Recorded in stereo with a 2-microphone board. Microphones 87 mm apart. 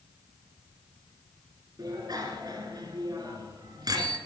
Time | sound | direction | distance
1.8 | a bicycle bell | 50° right (ahead or behind) | 2.5 m